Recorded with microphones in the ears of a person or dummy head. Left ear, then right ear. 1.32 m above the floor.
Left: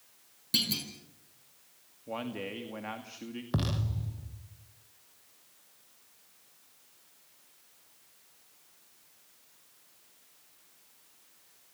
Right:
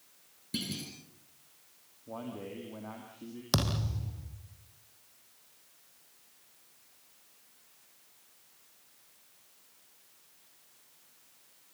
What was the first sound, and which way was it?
A clunk, 30° left (ahead or behind).